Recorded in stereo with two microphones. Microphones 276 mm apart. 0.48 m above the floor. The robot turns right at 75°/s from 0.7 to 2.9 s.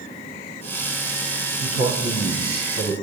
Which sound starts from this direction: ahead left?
A man speaking, at 1.6 s.